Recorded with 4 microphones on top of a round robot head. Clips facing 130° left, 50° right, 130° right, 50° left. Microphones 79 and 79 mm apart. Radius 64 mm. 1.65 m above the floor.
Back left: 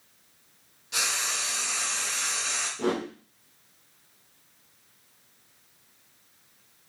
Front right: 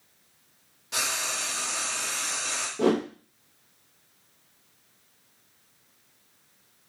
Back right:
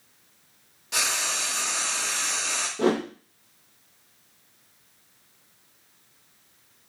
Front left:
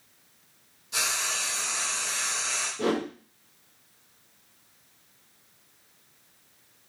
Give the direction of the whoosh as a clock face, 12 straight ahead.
2 o'clock.